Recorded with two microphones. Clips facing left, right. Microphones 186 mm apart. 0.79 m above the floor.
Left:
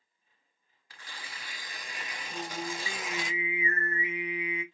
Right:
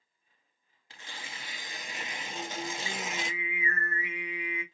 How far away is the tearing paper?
About 0.7 m.